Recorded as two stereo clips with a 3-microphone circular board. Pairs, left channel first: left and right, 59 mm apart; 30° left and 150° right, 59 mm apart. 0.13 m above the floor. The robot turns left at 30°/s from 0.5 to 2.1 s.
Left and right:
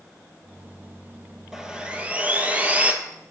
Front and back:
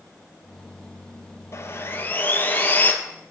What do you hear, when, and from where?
1.5 s sawing: 10° right, 1.0 m; by 2.9 s 25° right, 1.0 m